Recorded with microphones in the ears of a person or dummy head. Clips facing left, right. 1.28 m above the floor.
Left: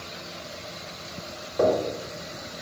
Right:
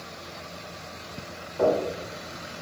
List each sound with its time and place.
1.6 s knocking: 55° left (ahead or behind), 0.8 m